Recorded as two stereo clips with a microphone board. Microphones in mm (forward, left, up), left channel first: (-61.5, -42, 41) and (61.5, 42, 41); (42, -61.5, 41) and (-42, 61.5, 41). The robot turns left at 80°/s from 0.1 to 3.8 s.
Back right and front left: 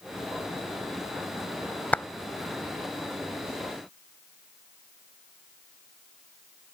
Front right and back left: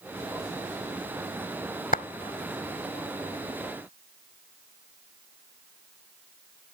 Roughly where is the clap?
Ahead right.